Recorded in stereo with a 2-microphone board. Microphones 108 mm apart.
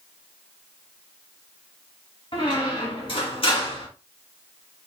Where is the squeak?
55° left (ahead or behind), 2.0 m.